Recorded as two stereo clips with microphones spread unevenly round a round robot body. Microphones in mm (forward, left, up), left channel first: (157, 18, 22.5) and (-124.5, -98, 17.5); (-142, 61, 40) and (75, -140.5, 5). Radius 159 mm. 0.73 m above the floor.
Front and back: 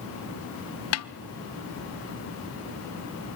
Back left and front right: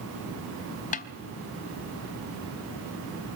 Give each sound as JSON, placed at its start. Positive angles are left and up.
{"t": 0.9, "sound": "a snare drum", "azimuth_deg": 70, "distance_m": 0.7}